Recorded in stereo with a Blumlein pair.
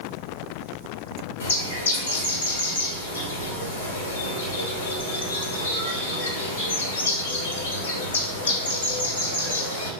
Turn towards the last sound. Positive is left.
turn(degrees=60)